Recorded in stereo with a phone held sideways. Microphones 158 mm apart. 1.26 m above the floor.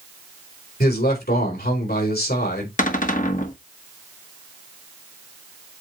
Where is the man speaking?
75° left (ahead or behind), 4 m.